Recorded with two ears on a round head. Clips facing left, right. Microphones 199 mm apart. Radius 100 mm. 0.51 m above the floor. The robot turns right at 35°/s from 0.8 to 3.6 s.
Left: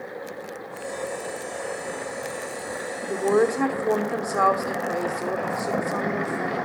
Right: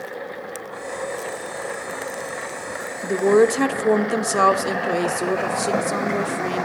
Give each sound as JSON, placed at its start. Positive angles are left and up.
{"t": 3.0, "sound": "a woman speaking", "side_deg": -35, "distance_m": 1.0}